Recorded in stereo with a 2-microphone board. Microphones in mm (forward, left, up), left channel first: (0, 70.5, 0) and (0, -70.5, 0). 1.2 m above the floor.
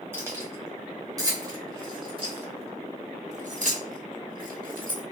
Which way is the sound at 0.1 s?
15° right (ahead or behind).